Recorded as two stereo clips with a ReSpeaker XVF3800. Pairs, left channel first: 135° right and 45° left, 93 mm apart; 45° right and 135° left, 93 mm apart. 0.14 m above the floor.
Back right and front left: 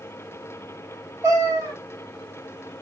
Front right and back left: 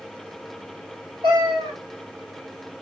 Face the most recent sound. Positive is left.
turn(degrees=100)